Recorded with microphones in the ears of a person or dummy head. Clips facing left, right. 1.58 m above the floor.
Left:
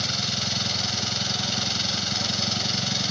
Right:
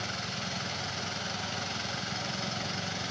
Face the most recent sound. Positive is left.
turn(degrees=60)  # may be behind; listen again after turning